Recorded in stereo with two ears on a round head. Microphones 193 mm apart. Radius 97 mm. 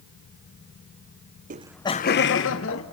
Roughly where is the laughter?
Right.